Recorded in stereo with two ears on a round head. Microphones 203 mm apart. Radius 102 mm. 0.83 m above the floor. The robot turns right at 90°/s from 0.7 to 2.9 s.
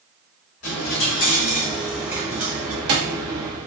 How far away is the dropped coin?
About 1.4 m.